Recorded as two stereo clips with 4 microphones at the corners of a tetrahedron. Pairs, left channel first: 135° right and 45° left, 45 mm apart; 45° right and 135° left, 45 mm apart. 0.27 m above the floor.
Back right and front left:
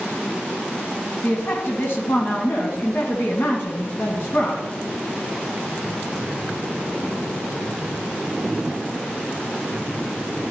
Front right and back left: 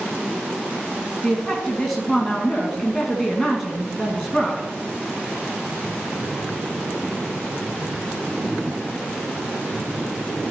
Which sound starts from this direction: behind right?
A woman speaking, at 1.2 s.